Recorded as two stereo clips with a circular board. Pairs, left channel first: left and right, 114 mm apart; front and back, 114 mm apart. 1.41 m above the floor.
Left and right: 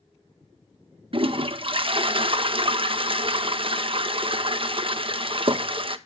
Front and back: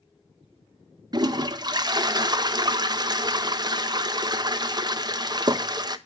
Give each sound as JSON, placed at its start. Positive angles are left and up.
{"t": 1.1, "sound": "a toilet flushing", "azimuth_deg": -130, "distance_m": 0.6}